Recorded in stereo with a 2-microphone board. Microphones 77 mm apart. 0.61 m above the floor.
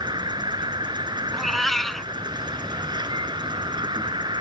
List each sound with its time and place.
0.0 s an insect: 65° right (ahead or behind)
1.3 s a cat meowing: centre (ahead or behind)